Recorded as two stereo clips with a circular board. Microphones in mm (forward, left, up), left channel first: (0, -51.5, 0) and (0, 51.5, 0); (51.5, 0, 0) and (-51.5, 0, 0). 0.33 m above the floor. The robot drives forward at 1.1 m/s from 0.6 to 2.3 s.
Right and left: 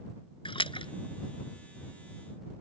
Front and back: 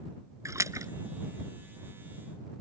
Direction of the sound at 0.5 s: 120° right.